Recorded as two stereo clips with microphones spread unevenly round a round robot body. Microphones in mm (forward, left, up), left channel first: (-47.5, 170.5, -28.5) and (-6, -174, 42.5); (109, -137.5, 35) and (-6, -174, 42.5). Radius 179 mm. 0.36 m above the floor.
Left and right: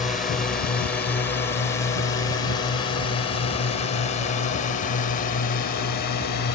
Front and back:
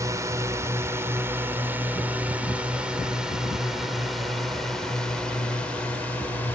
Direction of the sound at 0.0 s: 165° left.